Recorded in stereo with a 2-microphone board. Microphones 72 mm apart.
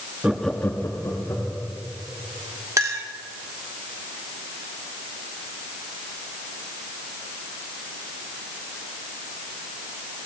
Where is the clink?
45° right (ahead or behind), 1.0 m.